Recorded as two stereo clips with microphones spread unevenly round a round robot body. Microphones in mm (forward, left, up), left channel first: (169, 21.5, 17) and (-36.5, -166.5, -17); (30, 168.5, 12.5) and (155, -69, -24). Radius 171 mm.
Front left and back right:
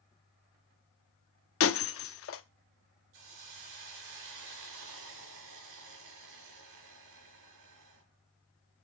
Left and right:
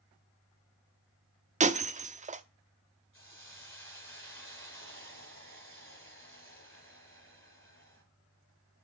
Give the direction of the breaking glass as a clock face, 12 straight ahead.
12 o'clock.